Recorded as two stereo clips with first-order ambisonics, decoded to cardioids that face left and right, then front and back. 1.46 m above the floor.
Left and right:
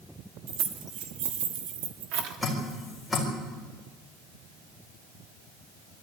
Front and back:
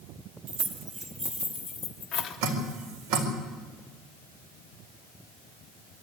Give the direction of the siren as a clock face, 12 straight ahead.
I don't hear a siren.